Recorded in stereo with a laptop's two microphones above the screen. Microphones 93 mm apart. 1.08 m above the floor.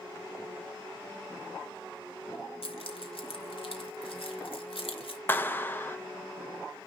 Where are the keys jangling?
75° left (ahead or behind), 1.6 m.